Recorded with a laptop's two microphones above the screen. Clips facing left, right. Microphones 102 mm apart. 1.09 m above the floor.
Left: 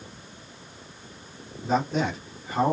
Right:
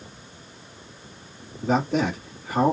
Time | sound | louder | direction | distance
1.6 | a man speaking | right 2 dB | 75° right (ahead or behind) | 2 m